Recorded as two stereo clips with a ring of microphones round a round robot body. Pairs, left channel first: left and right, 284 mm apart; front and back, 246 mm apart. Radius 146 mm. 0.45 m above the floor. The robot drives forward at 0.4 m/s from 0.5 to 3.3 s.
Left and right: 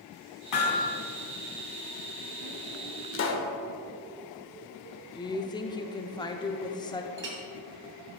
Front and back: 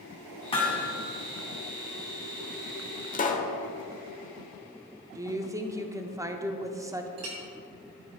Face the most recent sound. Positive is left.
turn(degrees=-140)